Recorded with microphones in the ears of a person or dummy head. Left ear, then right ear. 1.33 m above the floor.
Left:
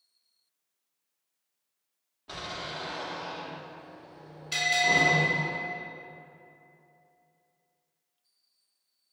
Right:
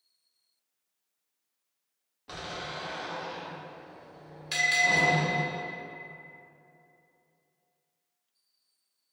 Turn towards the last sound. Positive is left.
turn(degrees=-55)  # may be behind; listen again after turning